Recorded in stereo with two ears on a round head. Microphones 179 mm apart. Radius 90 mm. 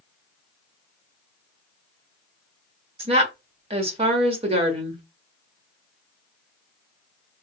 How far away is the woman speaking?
About 1.2 m.